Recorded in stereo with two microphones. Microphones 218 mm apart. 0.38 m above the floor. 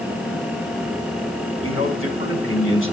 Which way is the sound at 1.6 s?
70° left (ahead or behind).